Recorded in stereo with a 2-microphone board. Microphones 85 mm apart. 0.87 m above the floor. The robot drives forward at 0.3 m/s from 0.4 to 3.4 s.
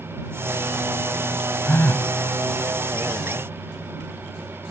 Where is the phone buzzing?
25° left (ahead or behind); by 2.1 s 20° left (ahead or behind).